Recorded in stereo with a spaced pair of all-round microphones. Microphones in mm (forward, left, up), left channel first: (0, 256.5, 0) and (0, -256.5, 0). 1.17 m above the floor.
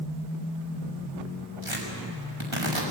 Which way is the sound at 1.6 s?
80° right.